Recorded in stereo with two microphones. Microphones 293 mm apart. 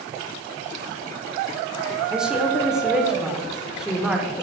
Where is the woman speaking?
Centre (ahead or behind), 0.7 m.